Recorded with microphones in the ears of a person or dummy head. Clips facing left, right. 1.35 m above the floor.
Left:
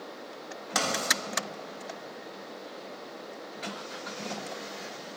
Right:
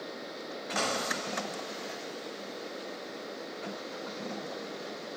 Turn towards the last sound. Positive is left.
turn(degrees=90)